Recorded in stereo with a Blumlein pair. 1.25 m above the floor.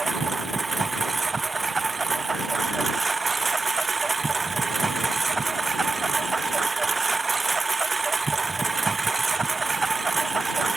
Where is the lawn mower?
15° right.